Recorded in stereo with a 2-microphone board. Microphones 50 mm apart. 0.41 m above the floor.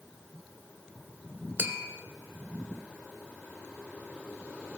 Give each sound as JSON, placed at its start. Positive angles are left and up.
{"t": 1.6, "sound": "tapping", "side_deg": -50, "distance_m": 0.7}